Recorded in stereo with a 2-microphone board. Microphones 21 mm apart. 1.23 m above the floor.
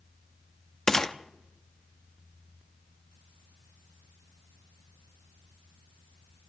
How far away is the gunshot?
About 0.7 m.